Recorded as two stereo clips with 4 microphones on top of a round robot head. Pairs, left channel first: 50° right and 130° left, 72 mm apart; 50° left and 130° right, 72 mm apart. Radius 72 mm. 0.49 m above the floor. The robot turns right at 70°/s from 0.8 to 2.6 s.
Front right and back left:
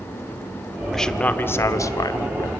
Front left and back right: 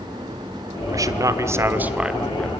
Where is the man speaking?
135° right, 1.4 m; by 2.5 s 25° right, 1.4 m.